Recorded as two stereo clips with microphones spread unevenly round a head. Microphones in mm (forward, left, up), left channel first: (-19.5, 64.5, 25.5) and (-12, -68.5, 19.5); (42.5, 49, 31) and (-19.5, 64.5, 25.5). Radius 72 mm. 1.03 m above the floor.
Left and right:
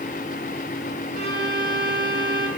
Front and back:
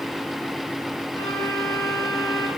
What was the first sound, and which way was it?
A violin, 65° right.